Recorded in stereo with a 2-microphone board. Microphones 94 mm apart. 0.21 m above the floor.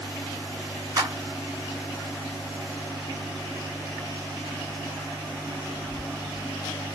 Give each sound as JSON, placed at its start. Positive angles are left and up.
{"t": 1.0, "sound": "a clap", "side_deg": -40, "distance_m": 2.0}